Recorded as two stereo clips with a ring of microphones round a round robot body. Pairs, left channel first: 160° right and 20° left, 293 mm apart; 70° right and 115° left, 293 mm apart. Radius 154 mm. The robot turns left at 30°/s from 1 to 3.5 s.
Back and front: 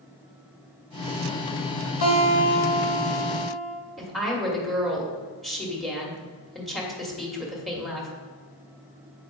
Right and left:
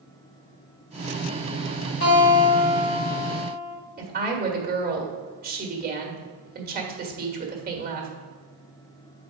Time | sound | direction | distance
2.0 | a guitar | 120° right | 2.0 m
4.0 | a woman speaking | 115° left | 1.5 m